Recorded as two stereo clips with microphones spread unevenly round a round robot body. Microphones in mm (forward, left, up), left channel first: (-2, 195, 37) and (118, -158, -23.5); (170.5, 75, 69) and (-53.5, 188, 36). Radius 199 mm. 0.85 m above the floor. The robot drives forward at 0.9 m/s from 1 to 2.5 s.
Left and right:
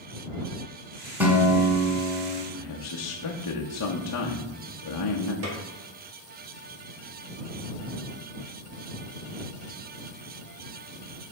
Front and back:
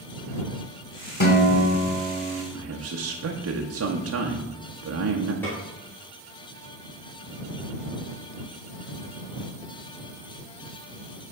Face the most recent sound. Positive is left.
turn(degrees=-115)